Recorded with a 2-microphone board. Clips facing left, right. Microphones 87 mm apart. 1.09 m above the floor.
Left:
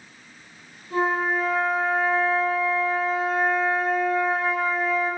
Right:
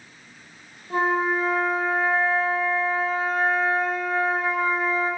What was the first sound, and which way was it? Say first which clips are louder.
A flute: right 1 dB; 40° right (ahead or behind).